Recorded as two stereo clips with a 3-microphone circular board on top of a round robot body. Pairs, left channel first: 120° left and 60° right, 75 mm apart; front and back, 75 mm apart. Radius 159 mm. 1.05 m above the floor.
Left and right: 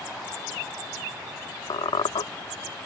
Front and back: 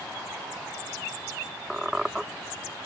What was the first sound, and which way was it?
A squeak, 95° left.